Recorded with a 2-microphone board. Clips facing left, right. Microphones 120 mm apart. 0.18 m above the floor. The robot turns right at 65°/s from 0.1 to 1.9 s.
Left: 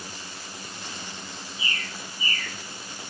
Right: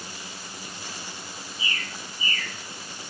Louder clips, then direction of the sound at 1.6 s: Even; 5° left (ahead or behind).